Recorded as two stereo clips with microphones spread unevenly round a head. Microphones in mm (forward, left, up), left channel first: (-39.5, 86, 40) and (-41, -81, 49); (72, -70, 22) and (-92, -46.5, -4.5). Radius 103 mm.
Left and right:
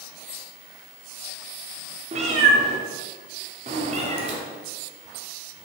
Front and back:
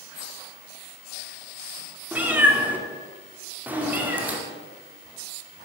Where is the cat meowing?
100° right, 0.7 m.